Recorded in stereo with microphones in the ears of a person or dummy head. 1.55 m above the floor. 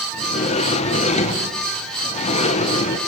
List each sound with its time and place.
0.1 s a sliding door: 30° left (ahead or behind), 1.3 m